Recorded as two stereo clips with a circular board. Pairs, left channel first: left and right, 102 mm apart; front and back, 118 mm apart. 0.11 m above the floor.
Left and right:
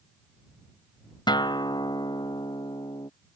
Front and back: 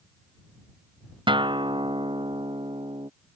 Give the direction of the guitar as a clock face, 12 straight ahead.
8 o'clock.